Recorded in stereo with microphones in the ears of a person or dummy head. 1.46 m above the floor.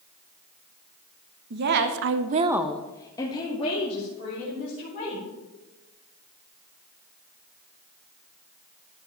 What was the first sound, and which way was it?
A woman speaking, 55° right (ahead or behind).